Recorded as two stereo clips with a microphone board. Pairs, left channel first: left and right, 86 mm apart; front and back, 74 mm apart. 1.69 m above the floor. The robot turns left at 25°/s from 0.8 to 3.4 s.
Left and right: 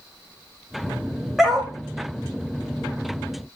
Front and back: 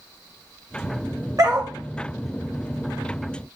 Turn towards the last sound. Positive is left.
turn(degrees=135)